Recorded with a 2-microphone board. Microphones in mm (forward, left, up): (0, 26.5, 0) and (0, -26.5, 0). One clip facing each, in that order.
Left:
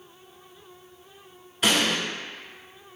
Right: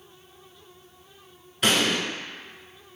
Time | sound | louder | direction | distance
1.6 | an explosion | even | centre (ahead or behind) | 0.8 m